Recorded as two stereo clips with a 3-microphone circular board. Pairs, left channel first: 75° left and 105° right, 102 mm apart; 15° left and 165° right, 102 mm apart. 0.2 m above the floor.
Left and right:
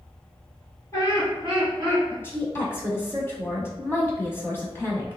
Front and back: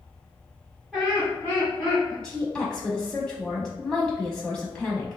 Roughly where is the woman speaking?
Left.